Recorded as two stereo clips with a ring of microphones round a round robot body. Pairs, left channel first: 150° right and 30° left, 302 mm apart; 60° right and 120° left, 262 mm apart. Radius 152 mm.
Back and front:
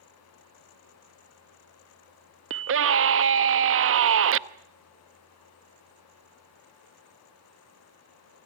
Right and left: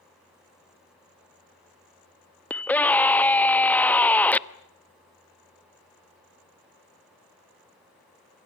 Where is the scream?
20° left, 1.0 m.